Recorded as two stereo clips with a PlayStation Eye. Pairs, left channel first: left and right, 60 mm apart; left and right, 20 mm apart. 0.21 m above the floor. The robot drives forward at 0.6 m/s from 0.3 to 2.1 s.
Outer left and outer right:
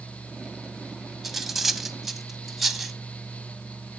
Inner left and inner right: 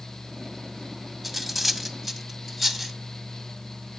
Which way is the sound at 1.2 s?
5° right (ahead or behind).